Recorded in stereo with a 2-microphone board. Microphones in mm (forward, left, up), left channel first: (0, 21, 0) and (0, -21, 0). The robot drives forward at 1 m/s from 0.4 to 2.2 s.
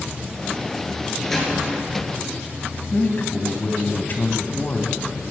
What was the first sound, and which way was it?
A door slam, 5° left (ahead or behind).